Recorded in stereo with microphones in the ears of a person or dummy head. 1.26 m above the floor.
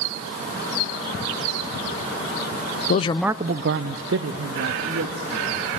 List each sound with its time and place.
2.9 s a man speaking: 45° left (ahead or behind), 0.7 m; by 5.6 s 85° right, 3.5 m